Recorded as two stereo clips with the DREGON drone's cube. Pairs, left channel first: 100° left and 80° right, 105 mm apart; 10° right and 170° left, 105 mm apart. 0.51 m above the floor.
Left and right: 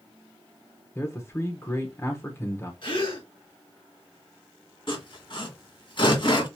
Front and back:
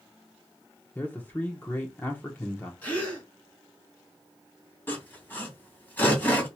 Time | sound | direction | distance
0.9 | a man speaking | 50° left | 1.2 m
2.8 | a gasp | 65° left | 3 m
4.9 | sawing | 60° left | 2.5 m